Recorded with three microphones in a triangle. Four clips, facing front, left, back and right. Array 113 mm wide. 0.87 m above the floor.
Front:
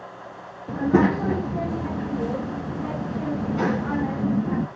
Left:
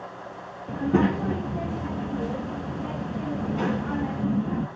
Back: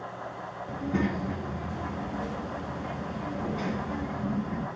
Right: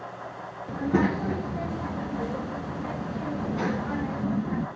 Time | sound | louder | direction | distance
0.7 | a child speaking | left 2 dB, front 10 dB | 5° left | 0.8 m